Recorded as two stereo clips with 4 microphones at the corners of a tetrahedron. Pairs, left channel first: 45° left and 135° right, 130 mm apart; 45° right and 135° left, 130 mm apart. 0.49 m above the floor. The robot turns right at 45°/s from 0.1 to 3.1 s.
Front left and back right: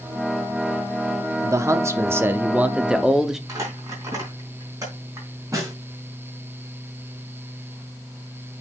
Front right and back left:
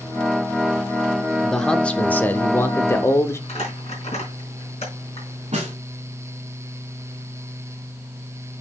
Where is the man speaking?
130° right, 0.7 m; by 3.4 s 55° right, 0.7 m.